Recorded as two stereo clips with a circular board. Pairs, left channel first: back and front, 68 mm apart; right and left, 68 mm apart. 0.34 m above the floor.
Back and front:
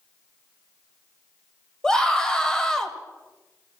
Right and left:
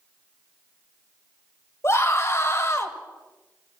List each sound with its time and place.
1.8 s a scream: 105° right, 1.6 m